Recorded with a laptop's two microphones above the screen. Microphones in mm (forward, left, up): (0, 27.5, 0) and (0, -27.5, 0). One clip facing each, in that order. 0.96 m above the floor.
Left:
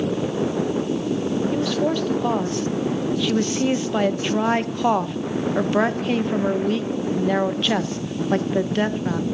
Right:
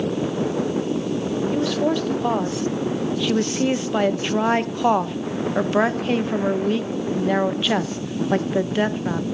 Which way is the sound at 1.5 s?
5° right (ahead or behind).